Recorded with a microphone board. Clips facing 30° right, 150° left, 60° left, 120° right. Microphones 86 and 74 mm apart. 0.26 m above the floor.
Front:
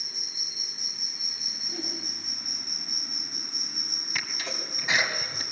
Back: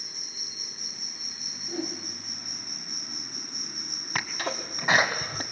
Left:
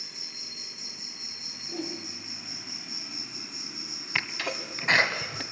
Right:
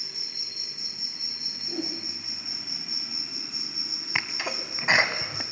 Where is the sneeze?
165° left, 1.7 m.